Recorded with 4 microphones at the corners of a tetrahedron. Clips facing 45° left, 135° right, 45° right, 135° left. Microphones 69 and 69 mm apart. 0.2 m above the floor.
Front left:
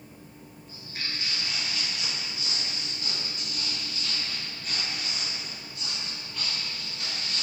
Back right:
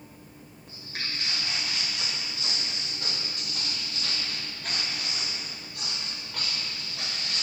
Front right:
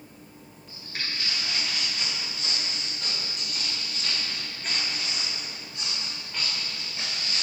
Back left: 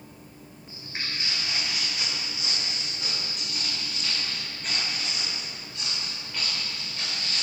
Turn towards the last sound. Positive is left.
turn(degrees=-125)